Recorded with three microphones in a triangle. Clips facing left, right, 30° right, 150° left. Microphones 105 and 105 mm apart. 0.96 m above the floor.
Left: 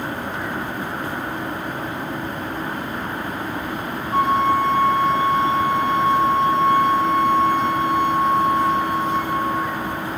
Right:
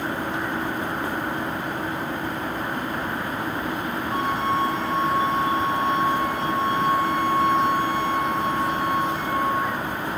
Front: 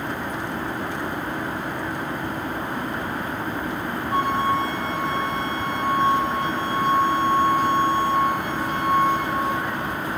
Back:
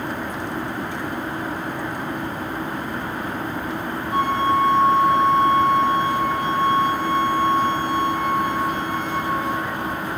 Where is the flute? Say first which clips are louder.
Left 7 dB, back 2 dB; 80° right, 2.5 m.